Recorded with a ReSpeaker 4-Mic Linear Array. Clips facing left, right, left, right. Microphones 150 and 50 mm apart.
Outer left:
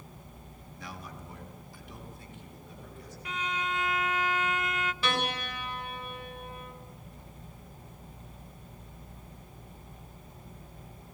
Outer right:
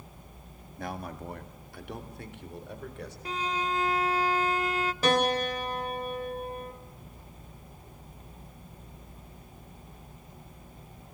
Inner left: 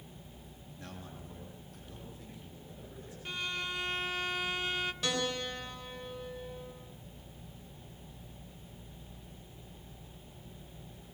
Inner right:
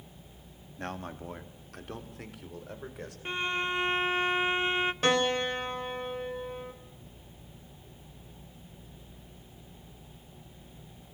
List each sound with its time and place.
0.8 s a man speaking: 55° right (ahead or behind), 2 m; by 3.1 s 75° right (ahead or behind), 5 m
3.2 s a violin: 35° right (ahead or behind), 0.7 m
5.0 s a piano: 45° right (ahead or behind), 3.5 m